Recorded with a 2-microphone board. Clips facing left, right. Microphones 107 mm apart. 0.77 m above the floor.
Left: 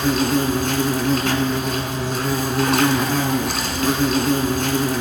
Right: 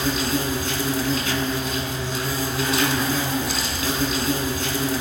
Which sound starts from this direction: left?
An insect, at 0.0 s.